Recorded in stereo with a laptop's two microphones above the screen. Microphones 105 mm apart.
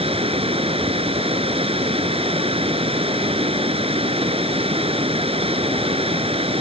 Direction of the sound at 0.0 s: 70° right (ahead or behind).